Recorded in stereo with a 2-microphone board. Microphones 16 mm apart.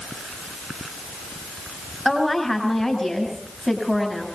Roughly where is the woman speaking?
Centre.